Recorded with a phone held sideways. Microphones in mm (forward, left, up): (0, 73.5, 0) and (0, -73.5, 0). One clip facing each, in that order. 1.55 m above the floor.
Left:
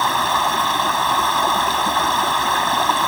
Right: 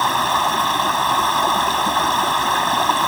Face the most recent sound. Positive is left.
turn(degrees=0)  # may be behind; listen again after turning